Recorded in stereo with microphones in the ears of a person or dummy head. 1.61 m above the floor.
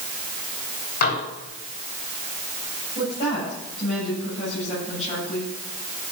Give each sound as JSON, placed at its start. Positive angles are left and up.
{"t": 1.0, "sound": "dishes clattering", "side_deg": 55, "distance_m": 3.0}
{"t": 3.0, "sound": "a woman speaking", "side_deg": 40, "distance_m": 8.5}